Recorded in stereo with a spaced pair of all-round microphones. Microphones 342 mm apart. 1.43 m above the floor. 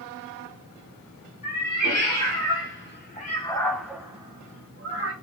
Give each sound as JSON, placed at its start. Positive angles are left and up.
{"t": 1.4, "sound": "a cat meowing", "side_deg": 55, "distance_m": 1.5}